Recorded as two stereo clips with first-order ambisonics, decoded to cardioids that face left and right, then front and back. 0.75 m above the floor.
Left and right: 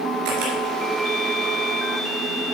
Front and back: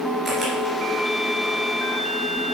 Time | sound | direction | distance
0.2 | a camera shutter | 100° right | 3 m